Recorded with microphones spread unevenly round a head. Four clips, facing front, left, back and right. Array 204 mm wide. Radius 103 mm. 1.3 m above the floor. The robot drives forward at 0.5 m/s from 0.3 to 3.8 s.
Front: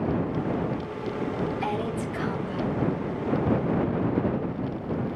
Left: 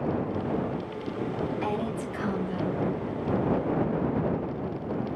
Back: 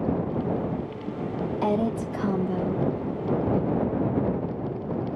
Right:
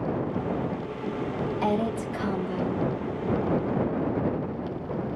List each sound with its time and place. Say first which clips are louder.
1.6 s a woman speaking: right 4 dB, back 4 dB; 160° right, 1.1 m; by 2.9 s 165° right, 1.7 m